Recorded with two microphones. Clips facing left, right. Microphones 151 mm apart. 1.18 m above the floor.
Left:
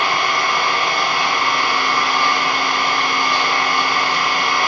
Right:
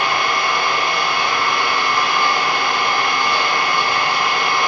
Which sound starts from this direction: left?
An engine running, at 0.0 s.